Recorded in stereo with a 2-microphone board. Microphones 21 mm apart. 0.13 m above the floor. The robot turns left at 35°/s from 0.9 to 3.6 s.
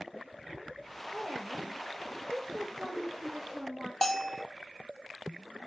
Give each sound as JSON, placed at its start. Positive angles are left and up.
{"t": 1.1, "sound": "a woman speaking", "azimuth_deg": -120, "distance_m": 6.0}
{"t": 4.0, "sound": "a bell", "side_deg": 10, "distance_m": 0.6}